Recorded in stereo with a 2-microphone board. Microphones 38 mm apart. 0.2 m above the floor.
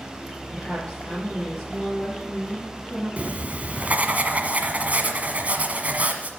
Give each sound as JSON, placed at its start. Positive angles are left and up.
{"t": 0.5, "sound": "a woman speaking", "side_deg": 0, "distance_m": 5.0}
{"t": 3.2, "sound": "writing", "side_deg": -45, "distance_m": 1.3}